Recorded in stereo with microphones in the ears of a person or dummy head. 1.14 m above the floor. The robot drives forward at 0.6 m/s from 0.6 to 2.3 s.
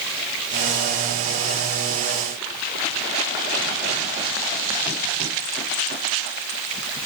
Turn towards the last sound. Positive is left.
No sound to turn to.